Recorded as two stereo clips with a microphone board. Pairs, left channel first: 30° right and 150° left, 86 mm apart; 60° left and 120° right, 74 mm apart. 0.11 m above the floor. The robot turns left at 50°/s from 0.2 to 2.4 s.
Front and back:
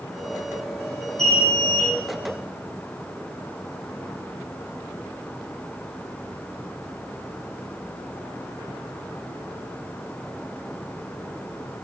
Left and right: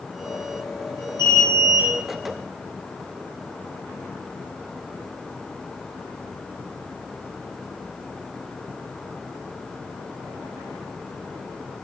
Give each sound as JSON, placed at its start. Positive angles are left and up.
{"t": 1.2, "sound": "an alarm", "azimuth_deg": 55, "distance_m": 5.5}